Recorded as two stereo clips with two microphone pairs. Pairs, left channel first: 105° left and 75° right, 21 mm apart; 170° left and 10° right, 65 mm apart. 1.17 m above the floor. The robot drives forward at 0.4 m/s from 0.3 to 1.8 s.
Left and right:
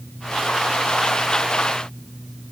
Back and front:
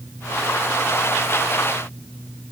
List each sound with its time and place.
Only background noise.